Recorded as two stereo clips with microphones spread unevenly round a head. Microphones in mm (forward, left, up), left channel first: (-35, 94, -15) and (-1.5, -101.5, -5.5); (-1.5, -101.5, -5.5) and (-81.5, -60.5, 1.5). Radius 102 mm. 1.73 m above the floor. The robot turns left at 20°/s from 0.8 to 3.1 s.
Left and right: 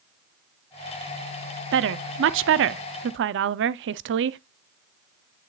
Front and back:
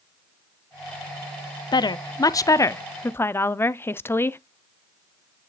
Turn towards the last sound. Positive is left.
turn(degrees=-95)